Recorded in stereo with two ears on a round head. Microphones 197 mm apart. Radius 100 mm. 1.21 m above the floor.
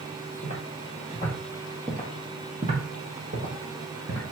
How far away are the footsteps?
About 1.9 m.